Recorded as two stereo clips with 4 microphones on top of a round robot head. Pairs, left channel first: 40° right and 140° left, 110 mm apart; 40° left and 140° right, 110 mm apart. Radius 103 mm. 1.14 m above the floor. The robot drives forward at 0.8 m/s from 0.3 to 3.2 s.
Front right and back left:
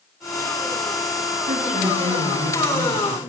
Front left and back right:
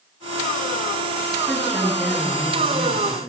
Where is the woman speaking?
135° left, 7.5 m; by 3.2 s 140° left, 8.5 m.